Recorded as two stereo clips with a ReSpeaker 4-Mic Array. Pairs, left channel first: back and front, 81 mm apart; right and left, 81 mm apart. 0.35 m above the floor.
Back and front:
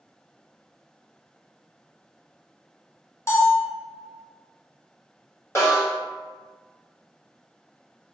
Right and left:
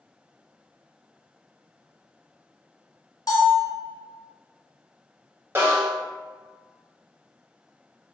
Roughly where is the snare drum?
Behind left.